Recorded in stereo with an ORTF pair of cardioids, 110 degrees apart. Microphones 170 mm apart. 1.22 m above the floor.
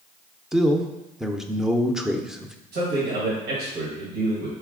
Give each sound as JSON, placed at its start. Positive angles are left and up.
{"t": 0.5, "sound": "a man speaking", "azimuth_deg": -5, "distance_m": 0.5}
{"t": 2.7, "sound": "a man speaking", "azimuth_deg": -70, "distance_m": 1.4}